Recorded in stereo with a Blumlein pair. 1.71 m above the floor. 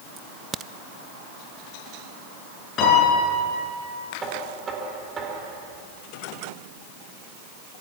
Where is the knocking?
20° right, 4 m.